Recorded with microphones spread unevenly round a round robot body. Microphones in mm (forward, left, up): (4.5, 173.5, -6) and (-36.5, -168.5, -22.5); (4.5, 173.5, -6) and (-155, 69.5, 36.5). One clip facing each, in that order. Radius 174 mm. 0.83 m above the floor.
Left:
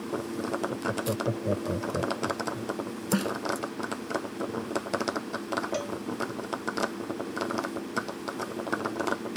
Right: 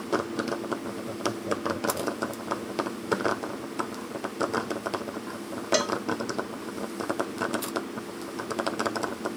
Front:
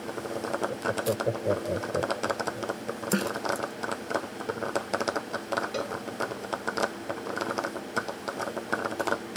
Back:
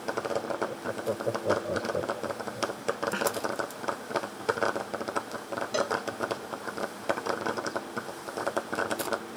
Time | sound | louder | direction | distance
0.7 | laughter | left 2 dB, front 3 dB | 100° left | ?
3.1 | a snare drum | left 1 dB, front 7 dB | 80° left | ?
5.7 | a cowbell | right 5 dB, back 3 dB | 80° right | ?